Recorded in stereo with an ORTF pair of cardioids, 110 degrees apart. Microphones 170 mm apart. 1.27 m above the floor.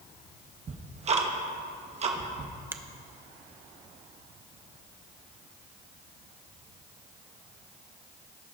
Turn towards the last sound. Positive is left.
turn(degrees=-10)